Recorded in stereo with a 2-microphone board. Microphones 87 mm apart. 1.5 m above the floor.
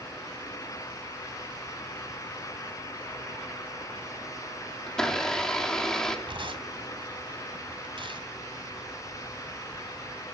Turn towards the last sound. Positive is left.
turn(degrees=-65)  # may be behind; listen again after turning